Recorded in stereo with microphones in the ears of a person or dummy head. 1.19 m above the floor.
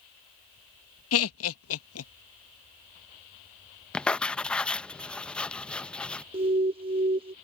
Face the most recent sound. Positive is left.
turn(degrees=-25)  # may be behind; listen again after turning